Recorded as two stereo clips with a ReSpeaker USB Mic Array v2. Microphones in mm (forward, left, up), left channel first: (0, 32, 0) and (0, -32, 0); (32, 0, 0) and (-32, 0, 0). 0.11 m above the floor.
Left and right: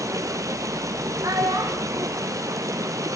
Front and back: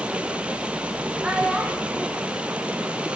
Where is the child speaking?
105° right, 2.5 m.